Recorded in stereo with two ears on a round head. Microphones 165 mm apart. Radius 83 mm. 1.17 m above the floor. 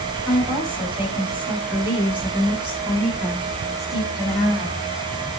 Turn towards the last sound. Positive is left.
turn(degrees=0)  # may be behind; listen again after turning